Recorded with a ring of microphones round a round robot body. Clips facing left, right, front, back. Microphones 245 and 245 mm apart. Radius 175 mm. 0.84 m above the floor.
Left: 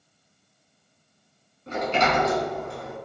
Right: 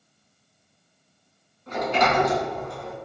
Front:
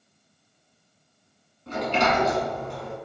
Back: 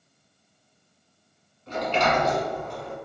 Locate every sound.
1.7 s a sliding door: 35° left, 1.6 m